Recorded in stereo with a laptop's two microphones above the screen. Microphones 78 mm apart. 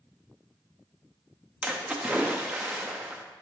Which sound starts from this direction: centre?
A splash, at 1.6 s.